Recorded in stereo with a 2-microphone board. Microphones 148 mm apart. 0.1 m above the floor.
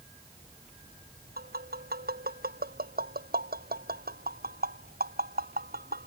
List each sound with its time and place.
1.4 s tapping: 80° right